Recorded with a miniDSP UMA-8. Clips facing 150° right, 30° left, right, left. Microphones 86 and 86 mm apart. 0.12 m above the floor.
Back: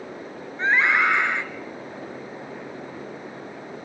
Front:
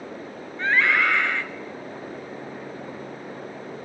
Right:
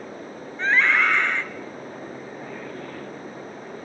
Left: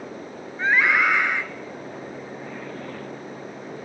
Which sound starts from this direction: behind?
A scream, at 0.6 s.